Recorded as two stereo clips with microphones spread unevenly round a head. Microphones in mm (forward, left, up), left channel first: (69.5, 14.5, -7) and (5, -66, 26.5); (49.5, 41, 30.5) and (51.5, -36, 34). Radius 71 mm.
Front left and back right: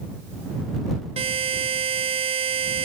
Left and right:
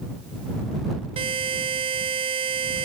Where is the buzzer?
110° right.